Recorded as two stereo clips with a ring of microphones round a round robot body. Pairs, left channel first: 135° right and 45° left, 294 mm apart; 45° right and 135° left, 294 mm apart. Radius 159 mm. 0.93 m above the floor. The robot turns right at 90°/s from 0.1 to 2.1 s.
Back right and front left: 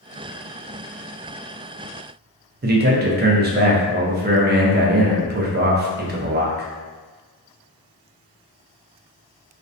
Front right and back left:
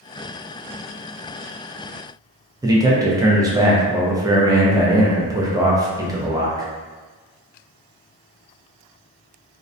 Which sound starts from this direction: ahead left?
A man speaking, at 2.6 s.